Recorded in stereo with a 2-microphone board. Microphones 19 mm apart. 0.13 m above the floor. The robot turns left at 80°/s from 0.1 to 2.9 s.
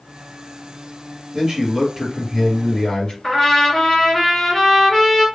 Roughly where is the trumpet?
Centre.